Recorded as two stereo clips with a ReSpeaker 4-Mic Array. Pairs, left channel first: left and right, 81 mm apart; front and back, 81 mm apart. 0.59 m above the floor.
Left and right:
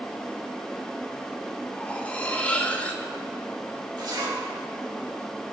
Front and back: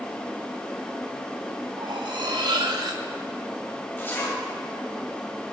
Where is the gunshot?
I don't hear a gunshot.